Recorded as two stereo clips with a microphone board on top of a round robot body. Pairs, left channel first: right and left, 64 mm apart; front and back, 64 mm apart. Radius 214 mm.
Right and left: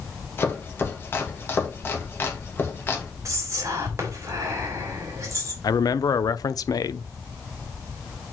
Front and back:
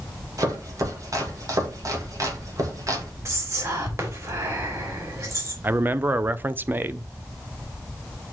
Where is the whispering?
135° left, 3.5 m.